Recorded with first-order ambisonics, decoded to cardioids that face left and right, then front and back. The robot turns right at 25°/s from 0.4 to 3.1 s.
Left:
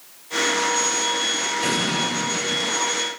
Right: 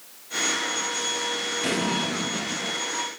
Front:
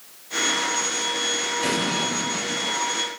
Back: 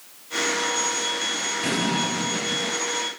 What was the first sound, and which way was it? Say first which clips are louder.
An explosion: left 2 dB, back 1 dB; 55° left.